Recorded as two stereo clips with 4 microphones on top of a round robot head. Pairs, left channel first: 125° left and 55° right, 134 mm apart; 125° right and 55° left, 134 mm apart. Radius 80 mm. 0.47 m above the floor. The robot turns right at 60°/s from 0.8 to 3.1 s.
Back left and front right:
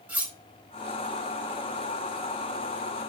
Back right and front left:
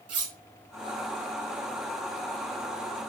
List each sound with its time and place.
0.1 s cutlery clinking: 25° left, 3.5 m